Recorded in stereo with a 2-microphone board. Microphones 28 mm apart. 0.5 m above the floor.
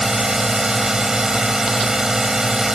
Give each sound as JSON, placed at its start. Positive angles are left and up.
{"t": 0.0, "sound": "a drone", "side_deg": -20}